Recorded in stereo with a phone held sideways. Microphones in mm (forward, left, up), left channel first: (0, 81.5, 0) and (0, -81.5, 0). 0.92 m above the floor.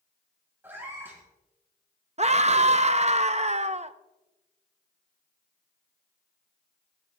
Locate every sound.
0.6 s a cat meowing: 15° right (ahead or behind), 3 m
2.2 s a scream: 40° right (ahead or behind), 0.6 m